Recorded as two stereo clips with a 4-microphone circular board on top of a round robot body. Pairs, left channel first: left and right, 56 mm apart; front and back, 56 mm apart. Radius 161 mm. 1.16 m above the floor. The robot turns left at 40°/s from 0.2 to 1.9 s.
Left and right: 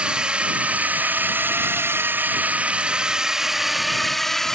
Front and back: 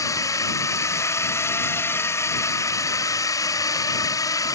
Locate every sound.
0.0 s a drone: 20° right; by 4.6 s 10° left